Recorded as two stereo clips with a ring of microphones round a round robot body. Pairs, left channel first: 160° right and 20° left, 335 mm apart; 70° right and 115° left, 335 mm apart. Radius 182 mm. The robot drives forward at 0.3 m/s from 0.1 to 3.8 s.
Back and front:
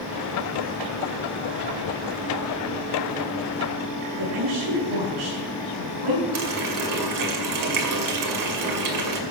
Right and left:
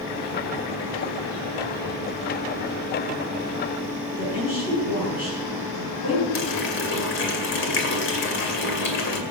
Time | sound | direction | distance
4.2 | a woman speaking | 5° left | 8 m
6.3 | a running tap | 10° right | 2 m